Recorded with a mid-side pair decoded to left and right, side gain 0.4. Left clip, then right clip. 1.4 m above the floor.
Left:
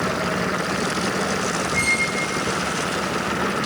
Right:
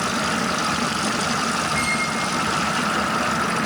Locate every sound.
1.7 s a squeak: 30° left, 3.5 m